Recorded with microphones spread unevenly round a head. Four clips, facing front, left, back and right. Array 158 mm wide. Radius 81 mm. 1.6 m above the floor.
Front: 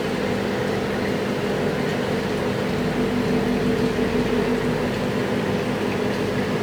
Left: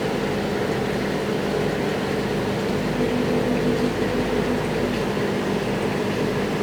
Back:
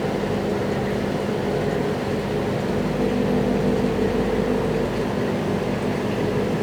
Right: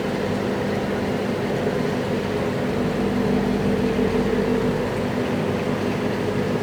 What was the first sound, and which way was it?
Only background noise.